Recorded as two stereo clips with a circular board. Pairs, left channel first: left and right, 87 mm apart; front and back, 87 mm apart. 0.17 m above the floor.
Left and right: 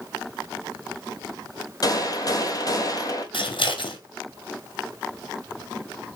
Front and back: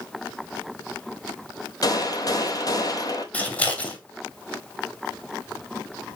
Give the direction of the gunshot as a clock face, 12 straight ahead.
11 o'clock.